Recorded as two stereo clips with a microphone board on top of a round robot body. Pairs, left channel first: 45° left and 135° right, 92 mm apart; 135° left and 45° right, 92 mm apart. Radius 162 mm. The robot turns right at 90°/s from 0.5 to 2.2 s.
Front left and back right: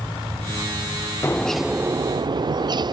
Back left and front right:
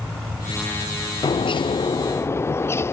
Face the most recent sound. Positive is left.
turn(degrees=-165)